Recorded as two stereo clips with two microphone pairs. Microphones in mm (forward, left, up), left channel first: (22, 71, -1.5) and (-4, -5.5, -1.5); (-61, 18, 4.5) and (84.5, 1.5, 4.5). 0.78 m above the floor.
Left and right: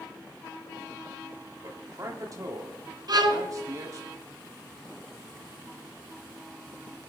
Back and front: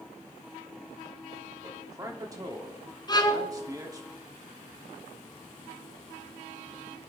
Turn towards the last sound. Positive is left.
turn(degrees=-130)